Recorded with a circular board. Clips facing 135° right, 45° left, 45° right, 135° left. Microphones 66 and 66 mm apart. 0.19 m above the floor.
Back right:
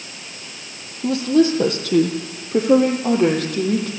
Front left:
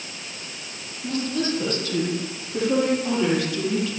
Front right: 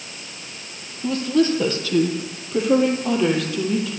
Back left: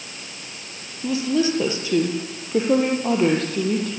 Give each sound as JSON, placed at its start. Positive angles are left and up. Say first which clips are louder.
{"t": 1.0, "sound": "a woman speaking", "louder": "back right 10 dB, front right 2 dB", "azimuth_deg": -145, "distance_m": 5.5}